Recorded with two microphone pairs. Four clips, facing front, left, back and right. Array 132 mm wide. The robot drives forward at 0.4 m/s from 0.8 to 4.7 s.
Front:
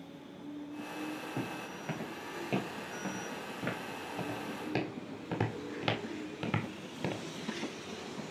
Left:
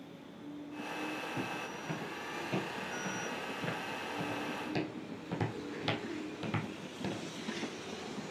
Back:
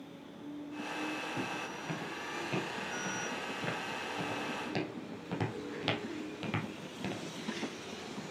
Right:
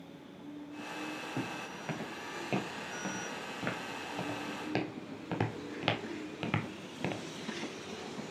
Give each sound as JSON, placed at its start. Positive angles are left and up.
{"t": 1.4, "sound": "footsteps", "azimuth_deg": -75, "distance_m": 4.0}